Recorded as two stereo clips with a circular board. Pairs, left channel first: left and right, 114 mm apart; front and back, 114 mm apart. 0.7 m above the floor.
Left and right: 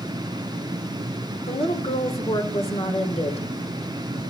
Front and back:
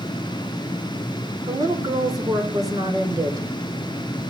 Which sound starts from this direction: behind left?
A woman speaking, at 1.5 s.